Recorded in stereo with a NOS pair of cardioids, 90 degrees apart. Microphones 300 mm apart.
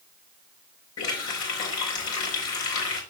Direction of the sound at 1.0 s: 65° left.